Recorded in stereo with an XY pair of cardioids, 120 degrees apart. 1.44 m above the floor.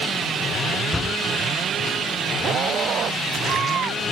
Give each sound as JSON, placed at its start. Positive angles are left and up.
{"t": 0.9, "sound": "a door slam", "azimuth_deg": 25}